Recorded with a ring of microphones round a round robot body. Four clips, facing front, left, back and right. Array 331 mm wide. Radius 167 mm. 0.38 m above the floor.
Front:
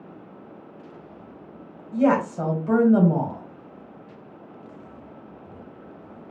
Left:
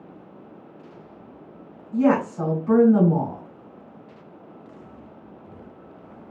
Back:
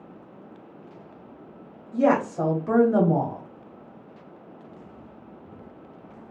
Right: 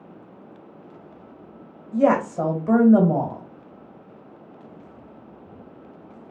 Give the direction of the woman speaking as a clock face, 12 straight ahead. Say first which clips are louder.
Right 1 dB, front 1 dB; 3 o'clock.